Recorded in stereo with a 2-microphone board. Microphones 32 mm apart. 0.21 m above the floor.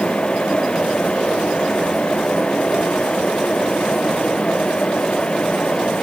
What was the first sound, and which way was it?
Only background noise.